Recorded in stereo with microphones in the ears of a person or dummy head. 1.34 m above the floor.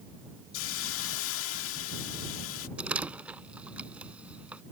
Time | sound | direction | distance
0.5 | a hiss | 70° left (ahead or behind) | ?
2.8 | a door slam | 5° right (ahead or behind) | ?